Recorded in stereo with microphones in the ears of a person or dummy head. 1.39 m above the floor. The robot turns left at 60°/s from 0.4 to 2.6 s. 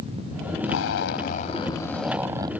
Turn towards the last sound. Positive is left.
turn(degrees=-30)